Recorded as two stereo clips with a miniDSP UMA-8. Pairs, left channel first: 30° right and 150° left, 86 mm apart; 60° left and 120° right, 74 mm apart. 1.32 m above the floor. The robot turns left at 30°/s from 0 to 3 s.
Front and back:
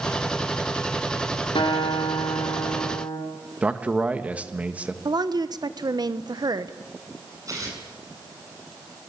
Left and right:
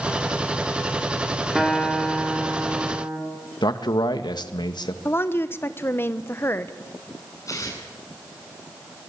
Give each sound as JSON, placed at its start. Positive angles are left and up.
{"t": 1.6, "sound": "a guitar", "azimuth_deg": -30, "distance_m": 5.0}
{"t": 3.6, "sound": "a man speaking", "azimuth_deg": 75, "distance_m": 1.7}
{"t": 5.0, "sound": "a woman speaking", "azimuth_deg": 115, "distance_m": 1.1}
{"t": 7.5, "sound": "tearing paper", "azimuth_deg": 100, "distance_m": 8.0}